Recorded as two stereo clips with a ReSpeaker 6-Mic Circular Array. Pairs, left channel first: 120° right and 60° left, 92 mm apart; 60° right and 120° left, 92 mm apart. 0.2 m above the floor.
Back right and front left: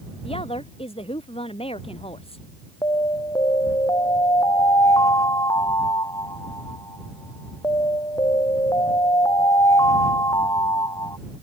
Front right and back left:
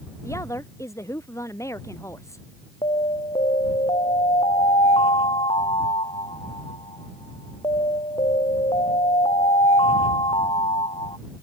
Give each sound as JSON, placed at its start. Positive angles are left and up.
{"t": 0.2, "sound": "a woman speaking", "azimuth_deg": -115}
{"t": 2.8, "sound": "an alarm", "azimuth_deg": -70}